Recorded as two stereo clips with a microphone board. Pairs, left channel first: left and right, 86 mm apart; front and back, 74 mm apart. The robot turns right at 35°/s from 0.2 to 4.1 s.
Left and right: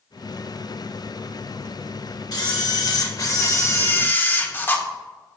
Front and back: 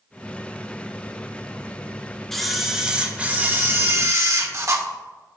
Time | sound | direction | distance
2.3 | a camera shutter | 85° left | 1.3 m